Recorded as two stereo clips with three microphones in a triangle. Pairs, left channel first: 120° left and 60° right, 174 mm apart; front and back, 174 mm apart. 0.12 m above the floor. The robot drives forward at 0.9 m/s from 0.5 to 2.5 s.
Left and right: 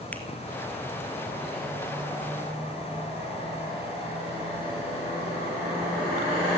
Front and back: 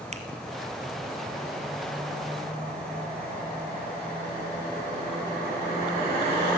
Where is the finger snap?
165° right, 1.8 m.